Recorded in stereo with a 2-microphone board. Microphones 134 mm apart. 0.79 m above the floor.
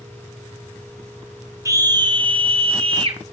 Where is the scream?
25° right (ahead or behind), 1.2 m; by 3.2 s 40° right (ahead or behind), 1.4 m.